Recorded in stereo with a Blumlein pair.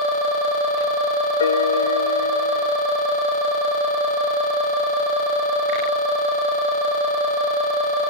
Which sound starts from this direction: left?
A piano, at 1.4 s.